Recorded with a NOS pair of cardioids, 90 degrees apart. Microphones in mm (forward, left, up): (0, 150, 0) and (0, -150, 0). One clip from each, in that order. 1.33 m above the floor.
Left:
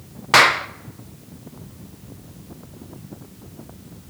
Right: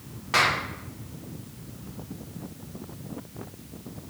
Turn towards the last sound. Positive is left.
turn(degrees=60)